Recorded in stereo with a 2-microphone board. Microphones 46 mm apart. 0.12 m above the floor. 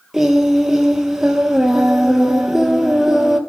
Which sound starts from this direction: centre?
Singing, at 0.1 s.